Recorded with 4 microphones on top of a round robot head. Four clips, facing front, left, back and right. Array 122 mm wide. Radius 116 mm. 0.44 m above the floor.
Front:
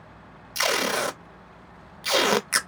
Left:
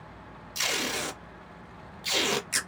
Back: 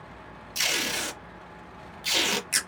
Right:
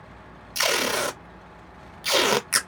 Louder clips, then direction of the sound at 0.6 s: Right 8 dB, front 8 dB; 40° right.